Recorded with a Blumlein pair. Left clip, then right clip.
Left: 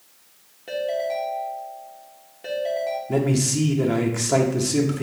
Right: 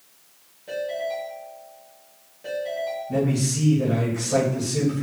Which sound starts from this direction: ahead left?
A man speaking, at 3.1 s.